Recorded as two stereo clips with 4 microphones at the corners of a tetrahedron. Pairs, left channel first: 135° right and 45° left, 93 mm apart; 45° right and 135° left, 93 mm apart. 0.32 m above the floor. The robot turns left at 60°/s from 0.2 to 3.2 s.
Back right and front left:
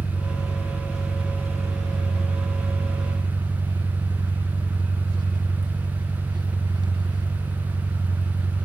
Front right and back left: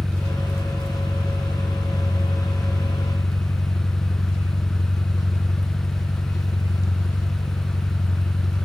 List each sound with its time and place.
0.0 s an engine running: 170° right, 1.7 m; by 8.7 s 10° left, 1.7 m